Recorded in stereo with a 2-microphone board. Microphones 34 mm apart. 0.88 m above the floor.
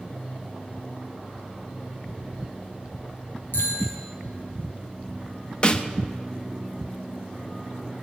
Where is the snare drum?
30° left (ahead or behind), 0.7 m.